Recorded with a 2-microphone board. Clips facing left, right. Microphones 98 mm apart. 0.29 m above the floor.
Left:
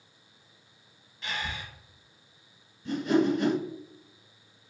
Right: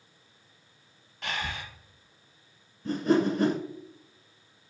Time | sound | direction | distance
1.2 | breathing | 70° right (ahead or behind) | 0.6 m
2.9 | a whoosh | 45° right (ahead or behind) | 0.6 m